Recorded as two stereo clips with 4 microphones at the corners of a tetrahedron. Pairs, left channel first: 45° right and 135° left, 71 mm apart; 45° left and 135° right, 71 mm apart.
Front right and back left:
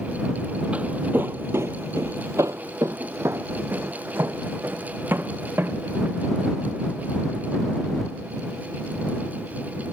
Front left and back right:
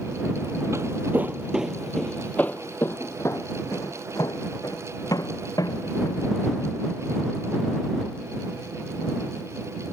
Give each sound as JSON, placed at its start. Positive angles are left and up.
{"t": 0.7, "sound": "footsteps", "azimuth_deg": -160}